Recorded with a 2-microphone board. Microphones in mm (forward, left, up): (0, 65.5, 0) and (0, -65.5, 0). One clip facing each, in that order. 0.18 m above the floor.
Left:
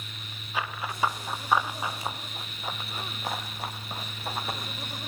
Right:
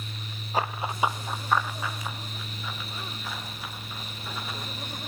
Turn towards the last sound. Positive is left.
turn(degrees=60)  # may be behind; listen again after turning